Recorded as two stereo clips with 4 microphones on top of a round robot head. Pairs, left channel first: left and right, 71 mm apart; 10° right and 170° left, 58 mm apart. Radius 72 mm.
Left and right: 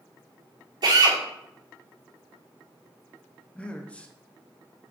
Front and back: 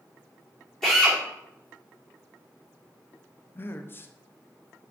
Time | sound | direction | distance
0.8 | a drill | 95° right | 2.5 m
3.5 | a man speaking | 25° left | 0.7 m